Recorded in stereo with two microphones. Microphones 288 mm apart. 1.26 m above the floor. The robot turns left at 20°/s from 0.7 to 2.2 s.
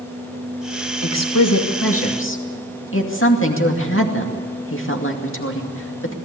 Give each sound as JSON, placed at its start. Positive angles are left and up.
{"t": 1.0, "sound": "a woman speaking", "side_deg": 65, "distance_m": 2.5}